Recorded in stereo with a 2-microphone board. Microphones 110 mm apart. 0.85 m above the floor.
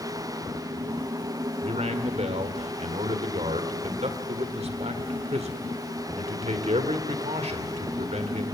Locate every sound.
1.6 s a man speaking: 75° right (ahead or behind), 2 m